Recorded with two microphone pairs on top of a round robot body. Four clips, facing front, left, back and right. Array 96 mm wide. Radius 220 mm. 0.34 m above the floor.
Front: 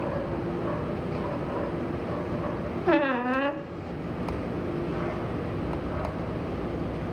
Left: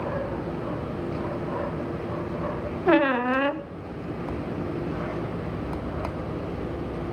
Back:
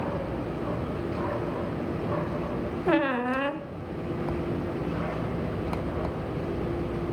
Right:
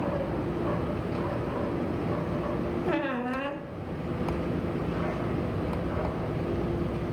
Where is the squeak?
80° left, 0.9 m.